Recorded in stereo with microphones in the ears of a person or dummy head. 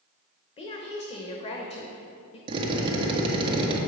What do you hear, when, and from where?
0.6 s a woman speaking: 30° left (ahead or behind), 0.9 m
2.5 s a drill: 30° right (ahead or behind), 1.2 m